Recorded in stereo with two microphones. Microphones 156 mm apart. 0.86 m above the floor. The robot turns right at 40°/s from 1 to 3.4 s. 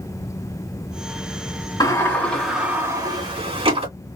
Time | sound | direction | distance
1.8 | a sliding door | 155° left | 2 m